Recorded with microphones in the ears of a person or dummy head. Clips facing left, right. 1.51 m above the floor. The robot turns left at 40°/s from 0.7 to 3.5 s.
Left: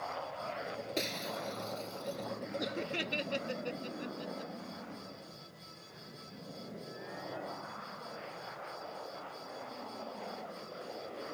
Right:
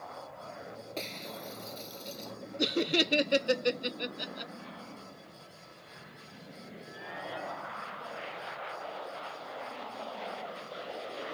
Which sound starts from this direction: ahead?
Breaking glass, at 1.0 s.